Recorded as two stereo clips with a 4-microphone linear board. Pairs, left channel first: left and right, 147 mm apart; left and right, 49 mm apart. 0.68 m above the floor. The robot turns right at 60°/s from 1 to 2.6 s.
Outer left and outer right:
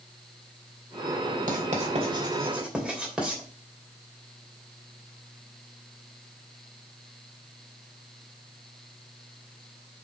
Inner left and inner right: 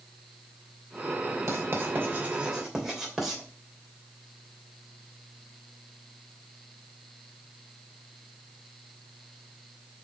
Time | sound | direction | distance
1.5 | writing | 70° right (ahead or behind) | 2.5 m